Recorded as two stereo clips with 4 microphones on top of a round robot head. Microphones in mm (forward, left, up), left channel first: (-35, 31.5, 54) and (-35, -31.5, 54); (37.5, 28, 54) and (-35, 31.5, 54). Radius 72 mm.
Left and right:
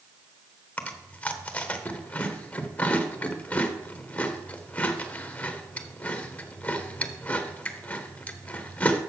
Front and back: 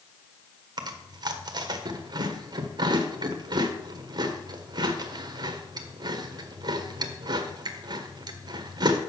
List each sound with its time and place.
0.8 s chewing: 155° left, 1.2 m